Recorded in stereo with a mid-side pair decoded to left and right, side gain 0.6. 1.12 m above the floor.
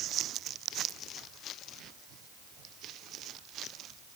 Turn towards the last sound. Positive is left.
No sound to turn to.